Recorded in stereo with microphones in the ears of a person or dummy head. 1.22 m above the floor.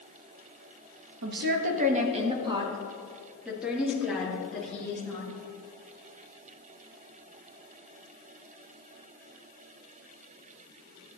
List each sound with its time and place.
1.2 s a woman speaking: 60° right (ahead or behind), 1.3 m; by 5.3 s 10° left (ahead or behind), 2.5 m